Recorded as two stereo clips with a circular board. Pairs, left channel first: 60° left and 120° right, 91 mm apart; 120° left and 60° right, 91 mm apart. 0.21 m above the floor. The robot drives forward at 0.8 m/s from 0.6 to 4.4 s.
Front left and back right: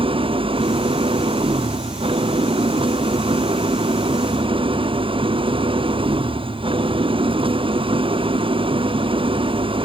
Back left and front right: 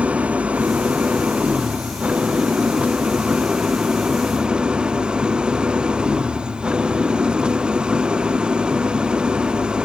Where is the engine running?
135° right; by 9.8 s 140° right.